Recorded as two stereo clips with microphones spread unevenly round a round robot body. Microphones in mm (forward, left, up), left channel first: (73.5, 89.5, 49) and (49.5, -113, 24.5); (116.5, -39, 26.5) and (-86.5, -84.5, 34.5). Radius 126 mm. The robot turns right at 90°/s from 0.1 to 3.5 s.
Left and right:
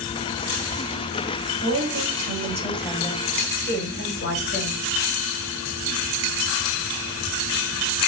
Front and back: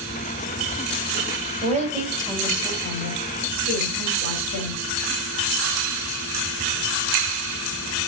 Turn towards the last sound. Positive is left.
turn(degrees=45)